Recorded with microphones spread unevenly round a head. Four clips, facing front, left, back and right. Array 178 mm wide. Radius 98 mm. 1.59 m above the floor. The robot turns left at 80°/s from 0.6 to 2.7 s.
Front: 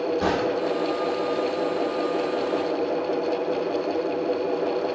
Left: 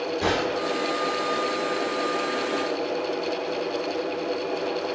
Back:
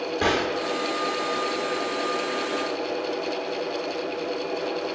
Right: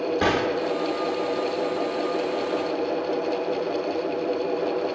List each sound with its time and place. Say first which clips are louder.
0.2 s a gunshot: right 1 dB, front 1 dB; 95° right, 1.9 m; by 0.7 s 100° right, 1.9 m